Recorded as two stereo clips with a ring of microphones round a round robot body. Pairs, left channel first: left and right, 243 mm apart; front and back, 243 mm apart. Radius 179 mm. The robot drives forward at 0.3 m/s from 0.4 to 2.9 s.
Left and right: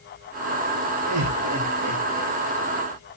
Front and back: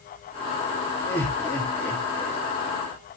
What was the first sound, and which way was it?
Laughter, 90° right.